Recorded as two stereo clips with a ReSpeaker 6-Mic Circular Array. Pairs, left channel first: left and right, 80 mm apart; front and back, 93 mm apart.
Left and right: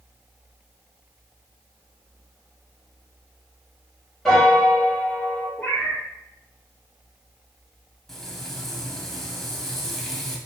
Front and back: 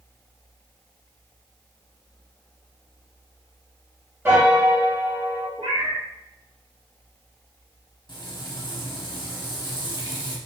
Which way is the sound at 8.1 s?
5° left.